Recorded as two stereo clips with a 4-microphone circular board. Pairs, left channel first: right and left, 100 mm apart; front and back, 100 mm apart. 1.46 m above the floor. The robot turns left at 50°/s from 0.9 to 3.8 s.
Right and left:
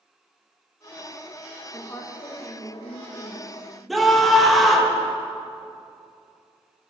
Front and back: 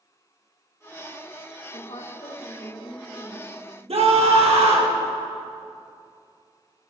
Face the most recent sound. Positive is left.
turn(degrees=180)